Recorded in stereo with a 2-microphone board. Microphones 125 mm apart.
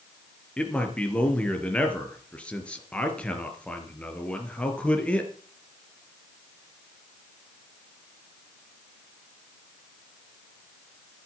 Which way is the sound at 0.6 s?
10° left (ahead or behind).